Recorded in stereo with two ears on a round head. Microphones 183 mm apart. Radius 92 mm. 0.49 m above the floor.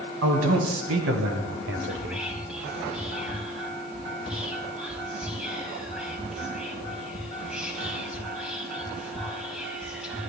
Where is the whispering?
5° right (ahead or behind), 4 m.